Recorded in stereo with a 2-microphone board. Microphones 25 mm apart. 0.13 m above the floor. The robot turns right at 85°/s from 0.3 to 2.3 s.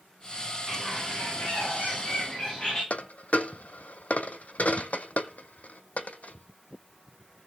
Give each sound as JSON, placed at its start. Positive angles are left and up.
{"t": 0.7, "sound": "a bird", "azimuth_deg": 10, "distance_m": 8.5}
{"t": 2.9, "sound": "a dropped coin", "side_deg": 80, "distance_m": 0.5}